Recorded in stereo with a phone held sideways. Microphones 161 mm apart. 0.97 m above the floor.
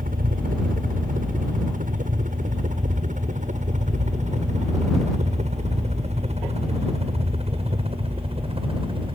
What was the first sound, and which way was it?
A helicopter, 60° right (ahead or behind).